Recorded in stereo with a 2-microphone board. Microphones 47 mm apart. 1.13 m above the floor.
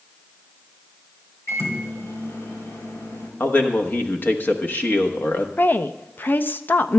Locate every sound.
1.5 s a microwave: 70° left (ahead or behind), 3 m
3.4 s a man speaking: 45° left (ahead or behind), 1.1 m
5.6 s a woman speaking: 40° left (ahead or behind), 0.5 m